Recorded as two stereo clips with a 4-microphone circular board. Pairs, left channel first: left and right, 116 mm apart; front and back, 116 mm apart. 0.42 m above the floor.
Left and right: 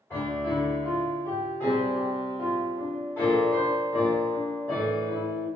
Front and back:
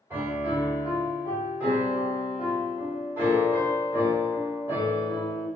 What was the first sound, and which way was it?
A piano, 135° left.